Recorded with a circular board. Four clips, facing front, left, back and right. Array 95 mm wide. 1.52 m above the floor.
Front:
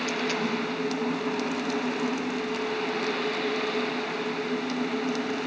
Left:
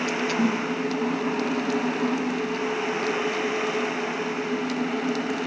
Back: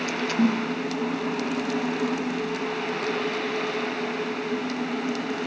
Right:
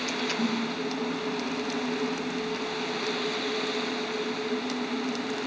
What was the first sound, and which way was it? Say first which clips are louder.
A snare drum: left 4 dB, back 6 dB; 150° left.